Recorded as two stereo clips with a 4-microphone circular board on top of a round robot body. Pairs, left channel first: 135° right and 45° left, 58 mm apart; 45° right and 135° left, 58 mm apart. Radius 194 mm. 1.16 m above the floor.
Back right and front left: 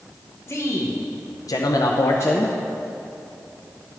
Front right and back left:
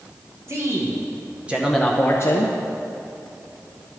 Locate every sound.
0.5 s a man speaking: straight behind, 1.5 m; by 2.5 s 70° right, 0.8 m